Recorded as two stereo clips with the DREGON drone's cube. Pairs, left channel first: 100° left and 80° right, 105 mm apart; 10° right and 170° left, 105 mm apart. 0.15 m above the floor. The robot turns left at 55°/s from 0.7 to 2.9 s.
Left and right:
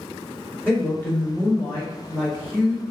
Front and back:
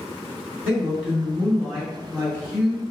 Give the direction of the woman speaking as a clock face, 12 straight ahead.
8 o'clock.